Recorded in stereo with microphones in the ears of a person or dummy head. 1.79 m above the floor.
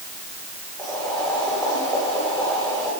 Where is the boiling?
5° left (ahead or behind), 8.5 m.